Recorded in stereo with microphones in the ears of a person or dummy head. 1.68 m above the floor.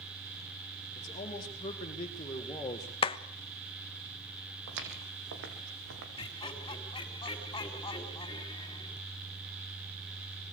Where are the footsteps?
70° right (ahead or behind), 4.5 m.